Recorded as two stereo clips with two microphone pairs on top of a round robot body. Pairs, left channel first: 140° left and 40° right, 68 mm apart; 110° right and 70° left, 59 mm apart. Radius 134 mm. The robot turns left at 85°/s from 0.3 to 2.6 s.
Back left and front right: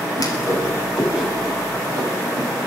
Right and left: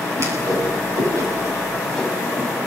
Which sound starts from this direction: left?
A whoosh, at 0.2 s.